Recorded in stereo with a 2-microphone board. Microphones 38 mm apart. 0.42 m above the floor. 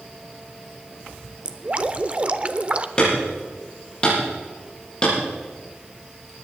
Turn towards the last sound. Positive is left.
turn(degrees=25)  # may be behind; listen again after turning